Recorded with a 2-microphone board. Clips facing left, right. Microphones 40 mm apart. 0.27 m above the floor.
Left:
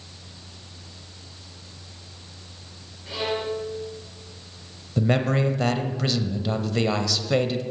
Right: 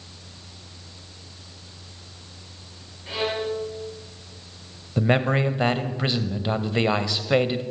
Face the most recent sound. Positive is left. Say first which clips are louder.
# right 1 dB
turn(degrees=-25)  # may be behind; listen again after turning